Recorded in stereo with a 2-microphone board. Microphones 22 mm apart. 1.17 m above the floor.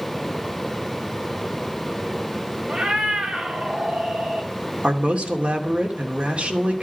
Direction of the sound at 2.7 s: 45° right (ahead or behind).